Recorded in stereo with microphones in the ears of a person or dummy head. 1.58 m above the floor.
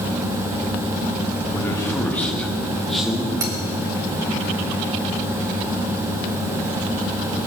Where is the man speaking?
20° left (ahead or behind), 1.7 m; by 3.3 s centre (ahead or behind), 2.5 m.